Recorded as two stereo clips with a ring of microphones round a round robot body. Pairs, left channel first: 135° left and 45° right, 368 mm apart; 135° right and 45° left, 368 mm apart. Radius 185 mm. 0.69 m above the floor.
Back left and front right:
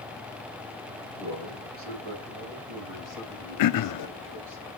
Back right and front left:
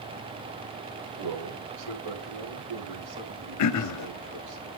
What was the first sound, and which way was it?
A man speaking, 15° left.